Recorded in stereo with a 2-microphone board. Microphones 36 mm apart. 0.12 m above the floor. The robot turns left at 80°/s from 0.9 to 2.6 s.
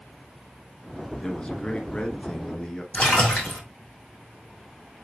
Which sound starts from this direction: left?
A splash, at 2.9 s.